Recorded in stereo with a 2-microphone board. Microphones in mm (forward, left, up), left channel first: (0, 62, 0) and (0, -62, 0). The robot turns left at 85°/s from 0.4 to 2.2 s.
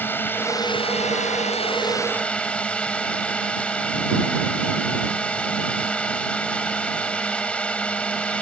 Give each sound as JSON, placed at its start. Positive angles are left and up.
{"t": 0.0, "sound": "a drone", "azimuth_deg": 165}